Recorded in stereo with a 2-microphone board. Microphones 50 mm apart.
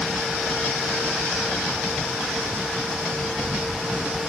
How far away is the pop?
No pop in this recording.